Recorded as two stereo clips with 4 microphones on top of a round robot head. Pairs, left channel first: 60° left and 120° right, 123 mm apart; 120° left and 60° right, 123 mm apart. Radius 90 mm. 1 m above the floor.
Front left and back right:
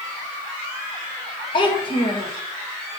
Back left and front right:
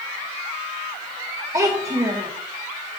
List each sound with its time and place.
1.5 s a child speaking: 5° left, 0.9 m